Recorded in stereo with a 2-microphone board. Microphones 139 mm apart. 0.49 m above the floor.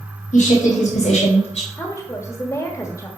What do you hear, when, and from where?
0.3 s a woman speaking: 70° left (ahead or behind), 3 m; by 1.7 s 50° left (ahead or behind), 2 m
1.8 s a woman speaking: 20° left (ahead or behind), 1.3 m